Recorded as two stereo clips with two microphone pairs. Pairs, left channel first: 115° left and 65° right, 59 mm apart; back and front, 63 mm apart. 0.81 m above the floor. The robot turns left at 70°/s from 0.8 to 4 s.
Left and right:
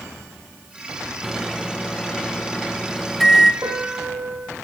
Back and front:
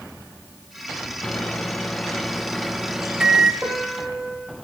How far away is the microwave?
About 0.7 m.